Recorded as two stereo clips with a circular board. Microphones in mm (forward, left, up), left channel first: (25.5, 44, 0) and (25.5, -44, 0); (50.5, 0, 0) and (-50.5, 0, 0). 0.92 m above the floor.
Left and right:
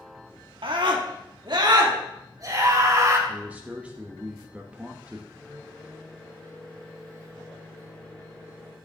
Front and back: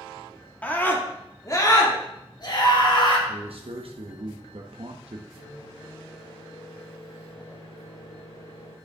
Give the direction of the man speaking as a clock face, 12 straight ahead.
5 o'clock.